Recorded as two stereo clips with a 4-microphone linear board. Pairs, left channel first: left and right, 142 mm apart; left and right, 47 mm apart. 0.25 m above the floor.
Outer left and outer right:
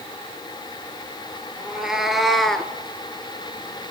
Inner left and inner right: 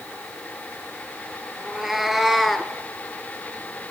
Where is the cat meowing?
5° right (ahead or behind), 1.6 m; by 2.7 s 5° left (ahead or behind), 0.9 m.